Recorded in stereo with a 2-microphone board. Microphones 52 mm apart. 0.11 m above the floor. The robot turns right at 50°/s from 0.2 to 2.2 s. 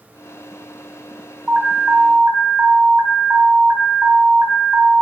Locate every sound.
1.5 s an alarm: 165° right, 3.5 m; by 5.0 s 125° right, 3.5 m